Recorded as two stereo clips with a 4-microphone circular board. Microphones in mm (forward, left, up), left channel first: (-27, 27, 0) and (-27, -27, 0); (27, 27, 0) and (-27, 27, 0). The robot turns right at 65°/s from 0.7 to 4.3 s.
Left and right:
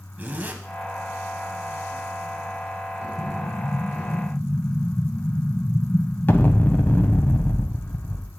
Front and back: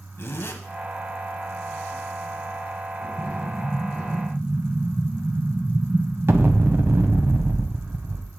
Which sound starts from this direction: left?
An explosion, at 3.2 s.